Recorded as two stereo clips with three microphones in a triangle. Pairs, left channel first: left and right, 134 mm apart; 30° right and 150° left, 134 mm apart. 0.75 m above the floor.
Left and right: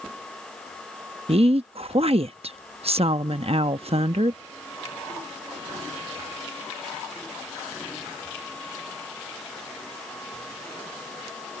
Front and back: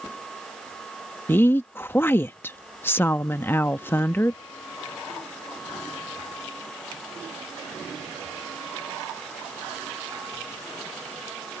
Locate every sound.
1.3 s a woman speaking: 100° right